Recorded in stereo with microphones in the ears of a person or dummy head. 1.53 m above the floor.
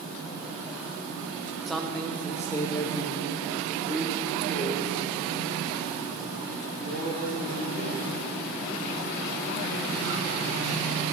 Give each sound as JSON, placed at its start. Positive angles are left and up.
{"t": 1.7, "sound": "a man speaking", "side_deg": 5, "distance_m": 1.0}